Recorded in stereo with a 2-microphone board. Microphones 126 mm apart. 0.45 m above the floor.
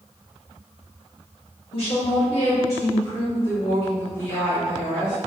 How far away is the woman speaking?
About 1.1 m.